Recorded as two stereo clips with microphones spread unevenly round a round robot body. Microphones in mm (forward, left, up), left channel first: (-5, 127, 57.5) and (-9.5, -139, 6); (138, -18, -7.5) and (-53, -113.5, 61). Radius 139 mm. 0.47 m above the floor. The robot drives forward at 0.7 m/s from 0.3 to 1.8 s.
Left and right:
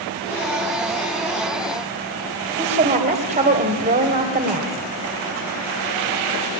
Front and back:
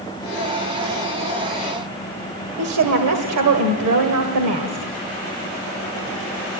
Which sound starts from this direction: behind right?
A woman speaking, at 2.6 s.